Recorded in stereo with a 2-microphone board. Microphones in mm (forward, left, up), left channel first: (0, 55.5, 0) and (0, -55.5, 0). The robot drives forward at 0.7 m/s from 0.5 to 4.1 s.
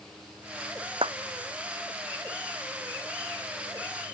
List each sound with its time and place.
1.0 s a clap: 50° right (ahead or behind)